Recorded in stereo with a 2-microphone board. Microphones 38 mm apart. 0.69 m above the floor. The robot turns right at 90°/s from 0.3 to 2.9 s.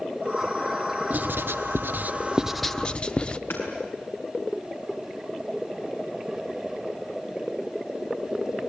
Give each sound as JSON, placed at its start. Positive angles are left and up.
{"t": 1.1, "sound": "writing", "side_deg": -40, "distance_m": 0.7}
{"t": 3.5, "sound": "hammering", "side_deg": 85, "distance_m": 6.0}